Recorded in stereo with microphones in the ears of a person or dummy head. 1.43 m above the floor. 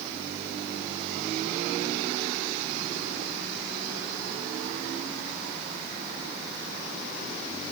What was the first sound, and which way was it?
Only background noise.